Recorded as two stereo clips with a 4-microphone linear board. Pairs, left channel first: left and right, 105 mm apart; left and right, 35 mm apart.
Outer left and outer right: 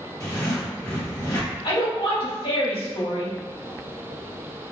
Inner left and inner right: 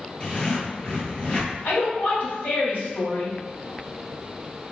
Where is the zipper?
35° left (ahead or behind), 1.6 m.